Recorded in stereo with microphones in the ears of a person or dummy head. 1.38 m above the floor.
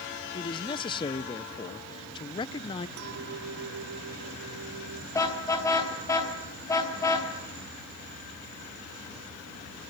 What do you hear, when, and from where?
0.3 s a man speaking: 25° left (ahead or behind), 0.7 m
3.0 s a clink: 65° right (ahead or behind), 1.7 m
5.1 s a car horn: 15° left (ahead or behind), 4.5 m